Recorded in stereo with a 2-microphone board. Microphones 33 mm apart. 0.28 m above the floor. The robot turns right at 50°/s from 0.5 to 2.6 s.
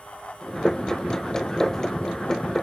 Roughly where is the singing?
I don't hear singing.